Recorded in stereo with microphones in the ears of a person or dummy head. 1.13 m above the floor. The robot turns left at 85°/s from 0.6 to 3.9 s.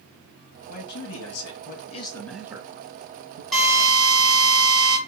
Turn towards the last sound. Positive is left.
turn(degrees=-25)